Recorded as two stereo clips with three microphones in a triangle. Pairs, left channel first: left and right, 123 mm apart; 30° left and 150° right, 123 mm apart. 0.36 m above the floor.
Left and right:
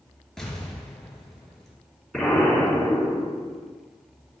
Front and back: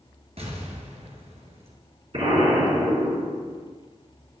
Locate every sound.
0.4 s an explosion: 175° left, 2 m
2.1 s an explosion: straight behind, 4 m